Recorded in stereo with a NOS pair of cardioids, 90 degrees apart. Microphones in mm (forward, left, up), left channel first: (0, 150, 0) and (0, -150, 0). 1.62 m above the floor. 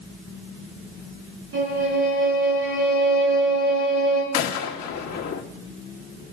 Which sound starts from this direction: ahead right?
A violin, at 1.5 s.